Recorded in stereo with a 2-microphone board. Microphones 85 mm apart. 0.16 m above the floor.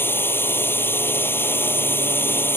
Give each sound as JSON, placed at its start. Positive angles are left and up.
{"t": 0.0, "sound": "a drone", "side_deg": 25}